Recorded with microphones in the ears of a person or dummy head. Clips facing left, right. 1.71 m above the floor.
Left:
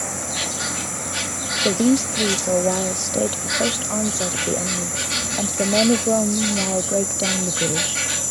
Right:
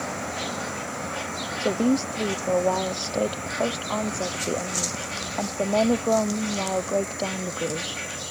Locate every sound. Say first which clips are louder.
0.0 s an insect: left 1 dB; 65° left (ahead or behind)
1.6 s a woman speaking: left 4 dB; 20° left (ahead or behind)